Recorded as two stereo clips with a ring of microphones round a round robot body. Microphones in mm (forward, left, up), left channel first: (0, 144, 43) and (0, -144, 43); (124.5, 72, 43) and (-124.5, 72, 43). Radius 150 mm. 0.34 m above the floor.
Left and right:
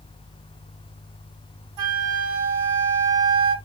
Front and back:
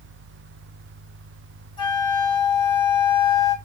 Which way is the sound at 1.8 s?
70° right.